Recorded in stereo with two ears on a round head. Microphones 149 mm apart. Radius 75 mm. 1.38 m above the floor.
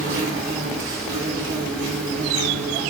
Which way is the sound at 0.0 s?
70° right (ahead or behind).